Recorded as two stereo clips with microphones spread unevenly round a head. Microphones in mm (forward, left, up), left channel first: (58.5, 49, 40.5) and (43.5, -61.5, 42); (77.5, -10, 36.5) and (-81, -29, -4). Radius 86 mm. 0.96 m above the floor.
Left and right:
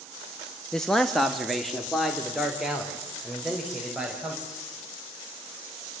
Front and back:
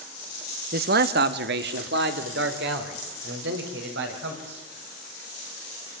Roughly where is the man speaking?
Behind.